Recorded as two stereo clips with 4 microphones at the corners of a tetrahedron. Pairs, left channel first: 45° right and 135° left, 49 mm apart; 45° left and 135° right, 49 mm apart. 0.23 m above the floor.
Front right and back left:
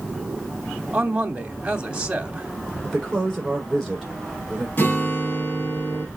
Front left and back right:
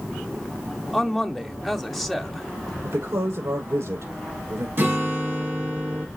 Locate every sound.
0.9 s a man speaking: 140° left, 0.9 m
2.8 s a woman speaking: 135° right, 6.5 m
4.8 s a guitar: 95° right, 3.5 m